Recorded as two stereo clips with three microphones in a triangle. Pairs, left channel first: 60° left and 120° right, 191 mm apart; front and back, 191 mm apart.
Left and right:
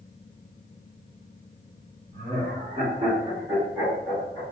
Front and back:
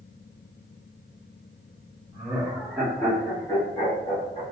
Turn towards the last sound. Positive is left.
turn(degrees=10)